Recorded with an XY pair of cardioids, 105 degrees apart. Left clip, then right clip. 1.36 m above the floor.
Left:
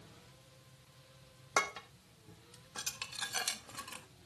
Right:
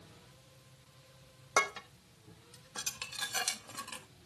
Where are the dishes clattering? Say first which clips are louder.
Right 3 dB; 10° right, 1.5 m.